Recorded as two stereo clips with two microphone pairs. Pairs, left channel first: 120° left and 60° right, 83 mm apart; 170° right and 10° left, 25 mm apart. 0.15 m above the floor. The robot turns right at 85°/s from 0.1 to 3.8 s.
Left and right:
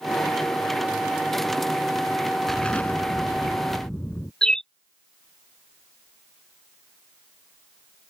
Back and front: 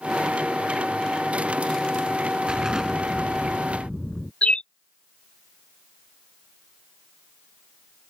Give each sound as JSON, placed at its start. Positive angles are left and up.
{"t": 2.5, "sound": "an explosion", "azimuth_deg": 35}
{"t": 4.4, "sound": "a bird", "azimuth_deg": -160}